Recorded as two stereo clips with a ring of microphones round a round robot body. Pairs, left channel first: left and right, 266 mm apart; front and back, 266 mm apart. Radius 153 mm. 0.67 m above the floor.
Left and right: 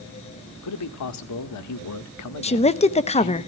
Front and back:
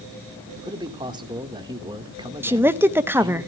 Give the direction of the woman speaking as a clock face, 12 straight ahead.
8 o'clock.